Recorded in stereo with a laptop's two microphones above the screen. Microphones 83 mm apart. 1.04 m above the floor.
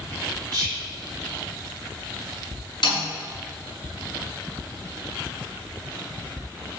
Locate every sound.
0.5 s whispering: 45° right (ahead or behind), 1.2 m
2.8 s a snare drum: 65° left (ahead or behind), 5.5 m